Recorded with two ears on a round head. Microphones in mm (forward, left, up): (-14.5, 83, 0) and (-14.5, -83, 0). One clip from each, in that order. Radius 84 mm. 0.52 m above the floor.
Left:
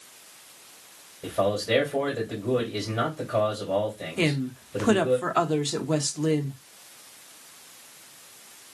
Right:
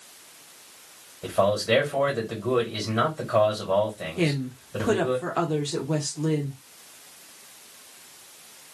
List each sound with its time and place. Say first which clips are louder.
1.2 s a man speaking: right 3 dB; 20° right (ahead or behind), 2.5 m
4.2 s a woman speaking: left 1 dB; 30° left (ahead or behind), 0.7 m